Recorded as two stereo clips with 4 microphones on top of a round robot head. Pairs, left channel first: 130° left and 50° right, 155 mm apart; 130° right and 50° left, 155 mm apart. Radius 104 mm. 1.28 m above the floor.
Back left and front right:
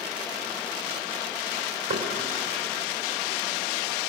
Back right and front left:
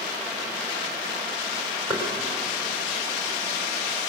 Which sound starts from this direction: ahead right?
Knocking, at 1.9 s.